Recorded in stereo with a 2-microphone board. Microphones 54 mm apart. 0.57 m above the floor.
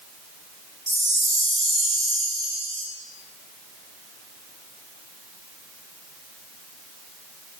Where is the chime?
70° right (ahead or behind), 0.8 m.